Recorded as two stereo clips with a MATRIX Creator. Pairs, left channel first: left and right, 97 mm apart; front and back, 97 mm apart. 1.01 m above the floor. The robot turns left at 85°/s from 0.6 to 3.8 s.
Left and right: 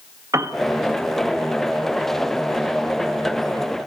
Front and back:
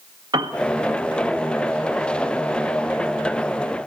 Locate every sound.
0.3 s a piano: 145° right, 1.5 m